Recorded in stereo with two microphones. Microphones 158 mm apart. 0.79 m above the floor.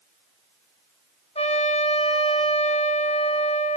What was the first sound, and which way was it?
A trumpet, 40° left (ahead or behind).